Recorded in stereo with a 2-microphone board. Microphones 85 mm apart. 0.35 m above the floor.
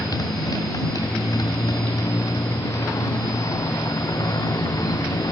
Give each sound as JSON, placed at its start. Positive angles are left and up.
{"t": 0.0, "sound": "a motorcycle", "side_deg": 45}